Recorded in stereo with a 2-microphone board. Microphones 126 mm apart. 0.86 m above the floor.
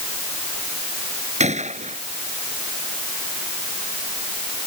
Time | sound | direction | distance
1.4 | a gunshot | 65° right (ahead or behind) | ?